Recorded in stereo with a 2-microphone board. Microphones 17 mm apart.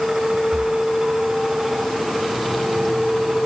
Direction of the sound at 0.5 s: 45° right (ahead or behind).